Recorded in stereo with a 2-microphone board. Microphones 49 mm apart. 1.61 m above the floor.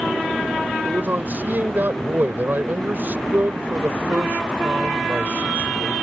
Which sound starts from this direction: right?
A man speaking, at 0.8 s.